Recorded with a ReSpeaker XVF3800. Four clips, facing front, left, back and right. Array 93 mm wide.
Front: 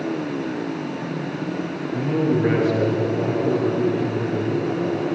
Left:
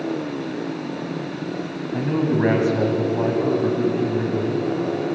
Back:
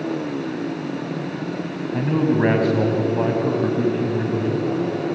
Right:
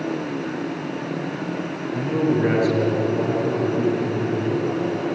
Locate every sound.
1.9 s a man speaking: 150° left, 4 m